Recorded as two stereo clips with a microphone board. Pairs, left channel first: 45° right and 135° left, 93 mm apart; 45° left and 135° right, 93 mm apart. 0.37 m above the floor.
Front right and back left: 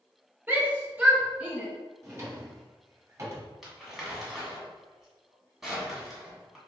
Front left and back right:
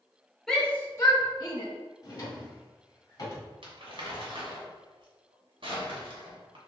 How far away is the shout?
About 1.2 m.